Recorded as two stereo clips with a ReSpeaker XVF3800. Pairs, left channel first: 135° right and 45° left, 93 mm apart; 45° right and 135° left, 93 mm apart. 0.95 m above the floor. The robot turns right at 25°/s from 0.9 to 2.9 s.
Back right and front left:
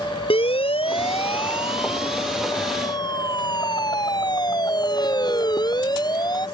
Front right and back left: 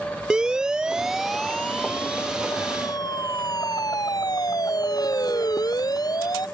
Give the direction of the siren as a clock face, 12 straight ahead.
5 o'clock.